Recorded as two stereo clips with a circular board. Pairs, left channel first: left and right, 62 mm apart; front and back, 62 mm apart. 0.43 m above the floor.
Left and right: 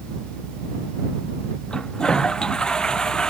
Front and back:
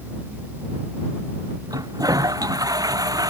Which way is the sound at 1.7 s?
165° left.